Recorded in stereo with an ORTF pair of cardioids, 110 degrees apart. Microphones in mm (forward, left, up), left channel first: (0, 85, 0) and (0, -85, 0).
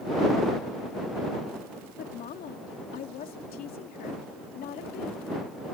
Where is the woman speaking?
60° left.